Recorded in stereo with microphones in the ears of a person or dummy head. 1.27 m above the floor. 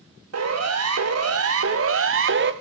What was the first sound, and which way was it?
A siren, 75° right (ahead or behind).